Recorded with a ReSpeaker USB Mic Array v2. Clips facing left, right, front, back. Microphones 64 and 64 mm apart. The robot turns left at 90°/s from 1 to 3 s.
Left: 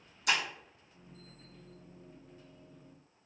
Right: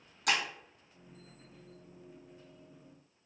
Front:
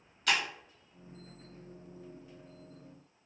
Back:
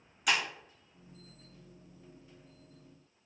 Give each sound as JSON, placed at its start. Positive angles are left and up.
{"t": 0.3, "sound": "breaking glass", "azimuth_deg": -100, "distance_m": 1.5}